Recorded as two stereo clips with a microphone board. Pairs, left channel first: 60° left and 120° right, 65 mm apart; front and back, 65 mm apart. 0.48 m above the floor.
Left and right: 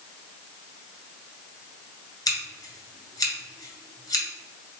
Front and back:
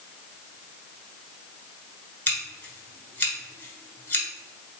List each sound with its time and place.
2.3 s scissors: 55° left, 1.6 m